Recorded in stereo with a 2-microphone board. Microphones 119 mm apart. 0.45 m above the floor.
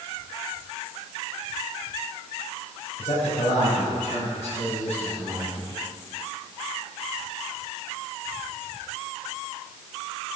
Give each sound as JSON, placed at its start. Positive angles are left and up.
{"t": 3.0, "sound": "a man speaking", "side_deg": 55, "distance_m": 2.5}